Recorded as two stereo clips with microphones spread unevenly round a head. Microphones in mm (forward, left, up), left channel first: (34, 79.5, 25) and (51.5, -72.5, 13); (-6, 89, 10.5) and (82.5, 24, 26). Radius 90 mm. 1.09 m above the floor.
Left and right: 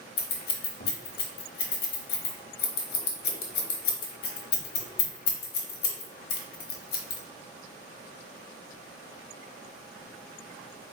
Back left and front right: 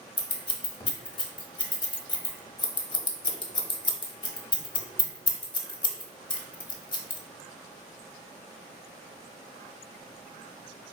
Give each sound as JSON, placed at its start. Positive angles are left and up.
{"t": 0.2, "sound": "scissors", "azimuth_deg": 110, "distance_m": 0.9}